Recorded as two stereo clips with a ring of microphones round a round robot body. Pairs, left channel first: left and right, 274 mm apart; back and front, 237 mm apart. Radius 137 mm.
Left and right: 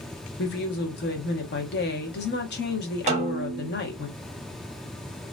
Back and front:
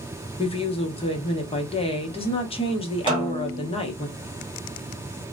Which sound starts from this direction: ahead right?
A snare drum, at 3.1 s.